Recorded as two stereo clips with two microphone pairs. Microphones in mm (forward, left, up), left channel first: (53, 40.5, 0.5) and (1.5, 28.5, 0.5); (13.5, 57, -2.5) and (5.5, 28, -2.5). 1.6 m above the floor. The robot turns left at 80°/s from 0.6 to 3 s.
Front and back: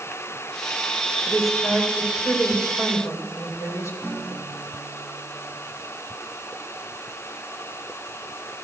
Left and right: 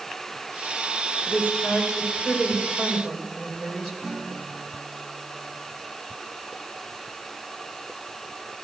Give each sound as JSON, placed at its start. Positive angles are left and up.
{"t": 1.3, "sound": "a woman speaking", "azimuth_deg": 125, "distance_m": 8.0}
{"t": 4.0, "sound": "a guitar", "azimuth_deg": -30, "distance_m": 6.0}